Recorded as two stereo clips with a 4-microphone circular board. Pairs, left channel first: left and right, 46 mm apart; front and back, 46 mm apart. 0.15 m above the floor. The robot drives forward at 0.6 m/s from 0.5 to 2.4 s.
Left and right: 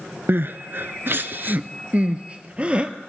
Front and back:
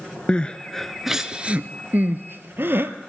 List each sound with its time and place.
0.3 s crying: 65° right, 0.7 m; by 2.9 s 150° right, 1.1 m